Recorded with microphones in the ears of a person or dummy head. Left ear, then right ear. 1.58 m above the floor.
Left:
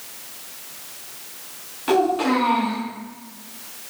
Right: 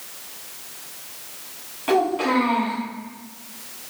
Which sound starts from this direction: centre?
A child speaking, at 1.9 s.